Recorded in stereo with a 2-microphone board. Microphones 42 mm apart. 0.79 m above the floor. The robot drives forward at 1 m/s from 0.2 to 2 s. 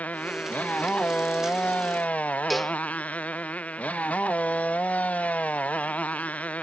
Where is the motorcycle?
40° left (ahead or behind).